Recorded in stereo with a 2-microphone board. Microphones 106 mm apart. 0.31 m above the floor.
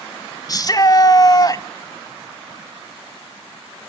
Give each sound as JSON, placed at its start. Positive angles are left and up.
{"t": 0.5, "sound": "a shout", "side_deg": 35, "distance_m": 1.5}